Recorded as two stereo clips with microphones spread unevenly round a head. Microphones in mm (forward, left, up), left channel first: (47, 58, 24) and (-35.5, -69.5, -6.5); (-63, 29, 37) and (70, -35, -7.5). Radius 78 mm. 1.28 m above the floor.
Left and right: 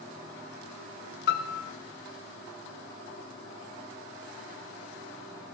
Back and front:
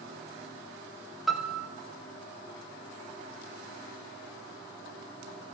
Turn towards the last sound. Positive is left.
turn(degrees=50)